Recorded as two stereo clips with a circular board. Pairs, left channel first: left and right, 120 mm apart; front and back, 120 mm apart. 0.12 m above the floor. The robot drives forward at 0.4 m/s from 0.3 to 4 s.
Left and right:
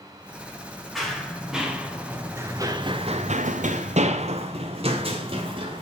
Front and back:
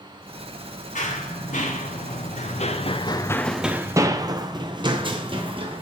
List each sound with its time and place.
0.9 s running footsteps: straight ahead, 2.5 m; by 5.8 s 135° right, 2 m